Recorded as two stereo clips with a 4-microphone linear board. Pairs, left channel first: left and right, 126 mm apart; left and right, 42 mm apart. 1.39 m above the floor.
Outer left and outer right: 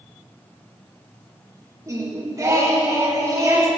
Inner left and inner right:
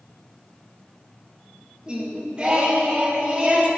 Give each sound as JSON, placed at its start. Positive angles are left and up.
{"t": 1.9, "sound": "singing", "side_deg": -25, "distance_m": 1.7}